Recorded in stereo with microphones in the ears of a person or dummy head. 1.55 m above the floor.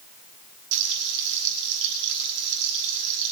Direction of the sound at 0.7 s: 65° right (ahead or behind).